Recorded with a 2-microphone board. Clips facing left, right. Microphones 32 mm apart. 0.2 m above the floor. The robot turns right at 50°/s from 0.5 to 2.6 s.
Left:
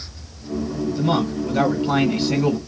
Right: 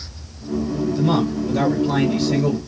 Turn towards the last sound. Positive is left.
turn(degrees=90)